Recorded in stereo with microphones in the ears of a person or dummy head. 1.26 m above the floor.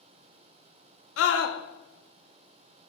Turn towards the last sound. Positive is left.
turn(degrees=80)